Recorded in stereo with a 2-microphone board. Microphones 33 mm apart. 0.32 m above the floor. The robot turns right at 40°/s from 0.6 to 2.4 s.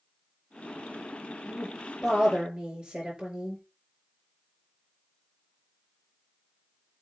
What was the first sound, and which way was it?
A woman speaking, 165° left.